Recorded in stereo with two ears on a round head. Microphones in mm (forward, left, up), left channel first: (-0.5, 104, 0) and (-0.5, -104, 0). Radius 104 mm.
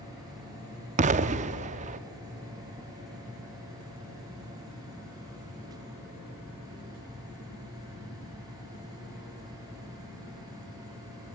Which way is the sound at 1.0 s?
30° right (ahead or behind).